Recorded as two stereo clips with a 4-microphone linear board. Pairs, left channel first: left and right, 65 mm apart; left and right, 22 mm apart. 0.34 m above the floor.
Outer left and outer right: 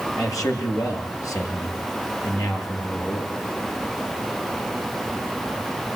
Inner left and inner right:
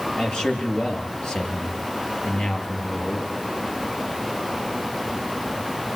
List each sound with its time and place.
0.1 s a man speaking: 55° left (ahead or behind), 7 m